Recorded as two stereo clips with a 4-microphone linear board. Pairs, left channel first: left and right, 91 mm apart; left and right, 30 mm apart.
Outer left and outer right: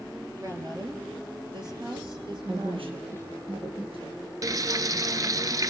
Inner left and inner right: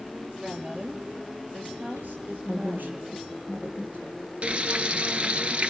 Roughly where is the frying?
Right.